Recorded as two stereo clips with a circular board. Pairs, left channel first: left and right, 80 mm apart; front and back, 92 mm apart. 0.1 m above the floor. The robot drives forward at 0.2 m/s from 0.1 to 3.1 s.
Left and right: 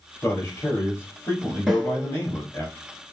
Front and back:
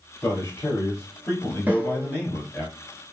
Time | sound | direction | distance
0.2 | a man speaking | 45° left | 1.7 m
1.7 | a snare drum | 170° right | 1.1 m